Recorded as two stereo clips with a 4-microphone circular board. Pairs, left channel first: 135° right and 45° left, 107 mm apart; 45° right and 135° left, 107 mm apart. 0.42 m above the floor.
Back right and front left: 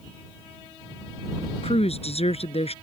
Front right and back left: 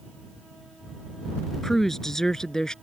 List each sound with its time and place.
1.6 s a woman speaking: 135° right; by 2.7 s 130° right